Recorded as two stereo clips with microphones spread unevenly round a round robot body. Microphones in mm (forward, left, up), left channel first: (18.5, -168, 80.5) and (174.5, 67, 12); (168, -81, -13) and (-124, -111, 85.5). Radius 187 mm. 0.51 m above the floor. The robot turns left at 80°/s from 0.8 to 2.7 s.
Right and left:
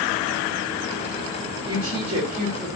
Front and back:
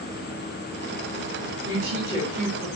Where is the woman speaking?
125° left, 1.1 m; by 2.7 s 45° left, 1.1 m.